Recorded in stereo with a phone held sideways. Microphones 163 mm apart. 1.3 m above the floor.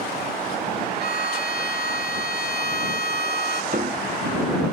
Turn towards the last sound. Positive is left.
turn(degrees=-55)  # may be behind; listen again after turning